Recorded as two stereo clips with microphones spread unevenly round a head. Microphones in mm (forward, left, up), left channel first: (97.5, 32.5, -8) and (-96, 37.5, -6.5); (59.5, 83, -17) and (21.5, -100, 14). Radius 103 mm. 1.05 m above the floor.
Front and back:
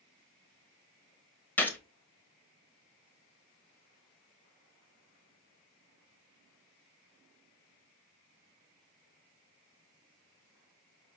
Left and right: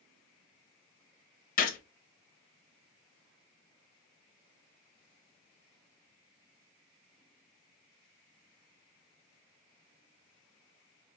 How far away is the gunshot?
About 0.9 m.